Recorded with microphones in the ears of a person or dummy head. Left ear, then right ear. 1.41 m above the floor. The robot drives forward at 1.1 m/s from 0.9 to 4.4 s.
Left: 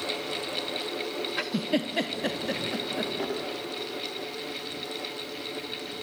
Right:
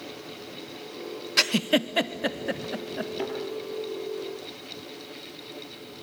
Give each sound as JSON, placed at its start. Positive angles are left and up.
{"t": 1.4, "sound": "a giggle", "side_deg": -75, "distance_m": 0.5}
{"t": 3.2, "sound": "a thud", "side_deg": -30, "distance_m": 6.0}